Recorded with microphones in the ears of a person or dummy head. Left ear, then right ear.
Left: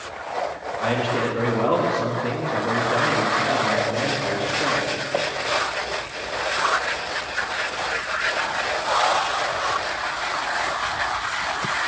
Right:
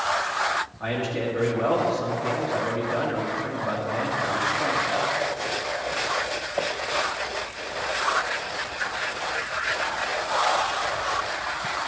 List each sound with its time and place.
0.8 s a man speaking: 5° left (ahead or behind), 1.9 m